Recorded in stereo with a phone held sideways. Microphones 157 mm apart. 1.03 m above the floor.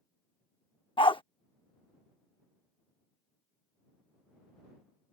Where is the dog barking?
35° left (ahead or behind).